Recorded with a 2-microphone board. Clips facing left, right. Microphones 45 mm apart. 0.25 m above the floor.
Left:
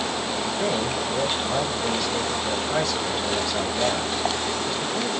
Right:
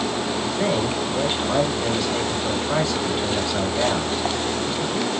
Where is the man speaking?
15° right (ahead or behind), 1.2 m.